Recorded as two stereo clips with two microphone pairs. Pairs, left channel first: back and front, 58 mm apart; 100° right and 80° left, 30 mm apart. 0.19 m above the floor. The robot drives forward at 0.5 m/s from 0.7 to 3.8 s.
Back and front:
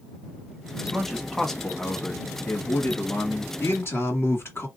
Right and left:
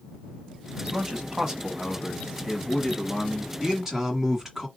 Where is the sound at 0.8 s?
65° left, 1.1 m; by 3.5 s 155° left, 1.5 m.